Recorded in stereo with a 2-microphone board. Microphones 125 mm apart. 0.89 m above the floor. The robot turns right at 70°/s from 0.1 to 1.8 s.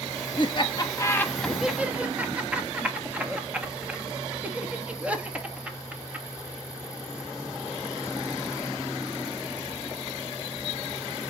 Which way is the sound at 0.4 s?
40° left (ahead or behind).